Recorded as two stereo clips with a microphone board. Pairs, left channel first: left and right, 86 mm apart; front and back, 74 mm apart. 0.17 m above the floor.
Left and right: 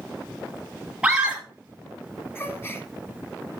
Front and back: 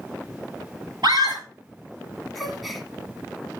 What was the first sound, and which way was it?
A scream, 165° right.